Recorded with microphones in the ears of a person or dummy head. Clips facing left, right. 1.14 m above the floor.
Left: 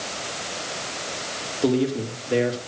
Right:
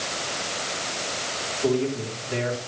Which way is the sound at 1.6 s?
55° left (ahead or behind).